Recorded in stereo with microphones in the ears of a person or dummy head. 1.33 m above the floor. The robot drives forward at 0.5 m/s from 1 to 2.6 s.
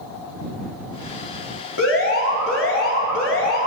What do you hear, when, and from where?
1.8 s an alarm: 65° left (ahead or behind), 2.0 m; by 3.7 s 55° left (ahead or behind), 2 m